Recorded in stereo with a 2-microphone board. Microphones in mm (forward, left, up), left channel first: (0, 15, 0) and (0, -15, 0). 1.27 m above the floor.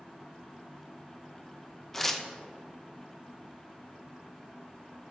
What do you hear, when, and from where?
1.9 s tearing paper: 10° left (ahead or behind), 0.6 m